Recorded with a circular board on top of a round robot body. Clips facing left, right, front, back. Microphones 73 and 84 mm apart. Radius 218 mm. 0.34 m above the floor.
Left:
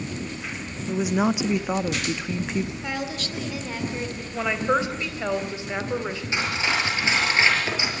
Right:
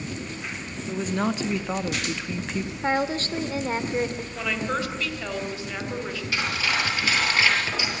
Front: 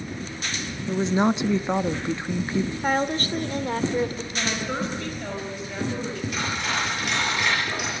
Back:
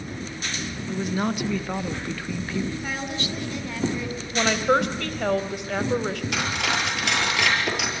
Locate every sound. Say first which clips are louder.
0.9 s a woman speaking: left 3 dB, front 5 dB; 25° left, 1.0 m
2.8 s a woman speaking: right 6 dB, front 6 dB; 40° right, 2 m
4.3 s a woman speaking: left 7 dB, back 11 dB; 160° left, 3 m
6.3 s cutlery clinking: left 1 dB, back 1 dB; 160° left, 7.5 m